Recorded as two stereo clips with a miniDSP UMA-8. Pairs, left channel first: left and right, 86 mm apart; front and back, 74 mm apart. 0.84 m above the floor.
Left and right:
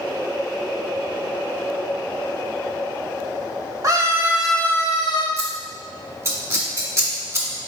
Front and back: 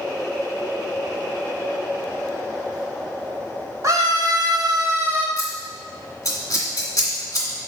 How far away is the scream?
About 1.5 m.